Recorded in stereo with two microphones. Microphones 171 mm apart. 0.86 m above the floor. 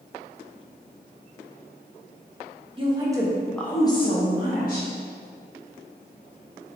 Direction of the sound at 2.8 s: 30° right (ahead or behind).